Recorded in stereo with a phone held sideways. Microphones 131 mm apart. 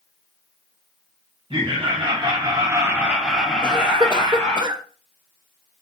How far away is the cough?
About 0.5 m.